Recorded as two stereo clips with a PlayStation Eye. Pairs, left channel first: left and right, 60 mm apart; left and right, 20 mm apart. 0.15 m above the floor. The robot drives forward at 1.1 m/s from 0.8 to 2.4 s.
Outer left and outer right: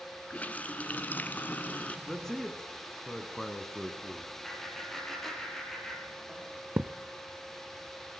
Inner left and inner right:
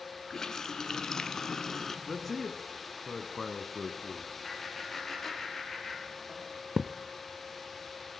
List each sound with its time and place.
0.3 s a running tap: 25° left (ahead or behind), 1.1 m
2.1 s a man speaking: 5° left (ahead or behind), 1.9 m; by 4.3 s 10° left (ahead or behind), 1.7 m
4.4 s laughter: 5° left (ahead or behind), 5 m
6.8 s a thud: 35° right (ahead or behind), 0.7 m